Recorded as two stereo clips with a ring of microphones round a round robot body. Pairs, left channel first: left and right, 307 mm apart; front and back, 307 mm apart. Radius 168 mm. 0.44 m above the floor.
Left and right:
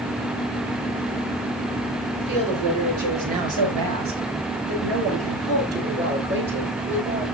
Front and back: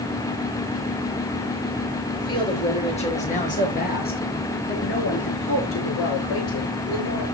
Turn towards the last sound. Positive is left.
turn(degrees=-35)